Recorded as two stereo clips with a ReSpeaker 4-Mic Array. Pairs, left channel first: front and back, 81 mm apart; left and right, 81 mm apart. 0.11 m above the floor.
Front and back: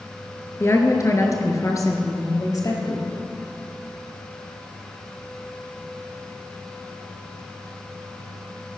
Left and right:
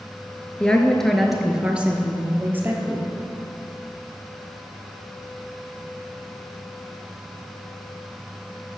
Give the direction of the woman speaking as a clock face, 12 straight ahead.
11 o'clock.